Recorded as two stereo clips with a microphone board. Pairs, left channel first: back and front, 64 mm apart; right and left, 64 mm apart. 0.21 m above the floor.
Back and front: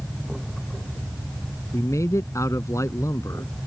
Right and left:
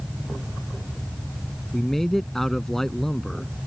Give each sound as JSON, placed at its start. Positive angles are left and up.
{"t": 1.7, "sound": "a man speaking", "azimuth_deg": -175}